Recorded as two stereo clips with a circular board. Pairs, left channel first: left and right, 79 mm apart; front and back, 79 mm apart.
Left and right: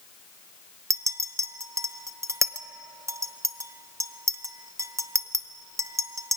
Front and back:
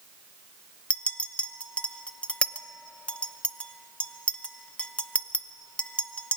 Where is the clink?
70° right, 0.7 m.